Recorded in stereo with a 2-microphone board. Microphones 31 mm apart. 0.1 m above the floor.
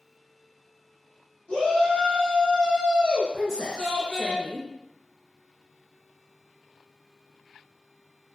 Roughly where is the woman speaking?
Centre.